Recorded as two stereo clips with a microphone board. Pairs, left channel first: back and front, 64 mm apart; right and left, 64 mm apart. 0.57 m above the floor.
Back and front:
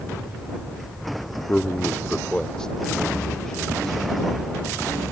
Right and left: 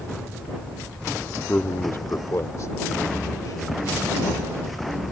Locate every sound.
1.5 s a man speaking: 130° right; by 5.0 s 95° right